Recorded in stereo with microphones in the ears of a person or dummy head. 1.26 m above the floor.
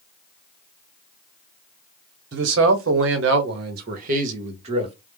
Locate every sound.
2.3 s a man speaking: 60° right (ahead or behind), 0.8 m; by 5.0 s 35° right (ahead or behind), 1.3 m